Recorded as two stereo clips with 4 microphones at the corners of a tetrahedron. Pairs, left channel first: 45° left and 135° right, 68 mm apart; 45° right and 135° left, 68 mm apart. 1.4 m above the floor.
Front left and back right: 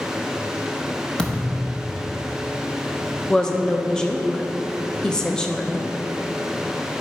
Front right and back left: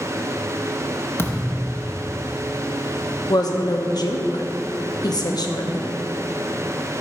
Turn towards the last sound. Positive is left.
turn(degrees=-35)